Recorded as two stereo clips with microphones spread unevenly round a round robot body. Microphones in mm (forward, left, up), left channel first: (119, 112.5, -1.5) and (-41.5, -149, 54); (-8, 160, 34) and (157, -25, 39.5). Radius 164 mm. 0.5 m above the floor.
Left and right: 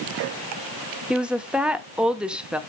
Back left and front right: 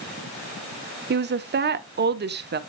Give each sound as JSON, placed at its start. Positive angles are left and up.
{"t": 1.1, "sound": "a woman speaking", "azimuth_deg": -25, "distance_m": 0.9}